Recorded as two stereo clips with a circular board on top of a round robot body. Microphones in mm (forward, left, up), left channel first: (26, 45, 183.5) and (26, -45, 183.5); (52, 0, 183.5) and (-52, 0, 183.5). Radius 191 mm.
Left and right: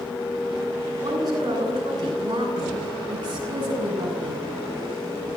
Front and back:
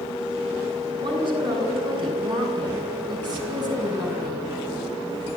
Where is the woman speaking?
140° right, 8.5 m; by 4.5 s 130° right, 7.5 m.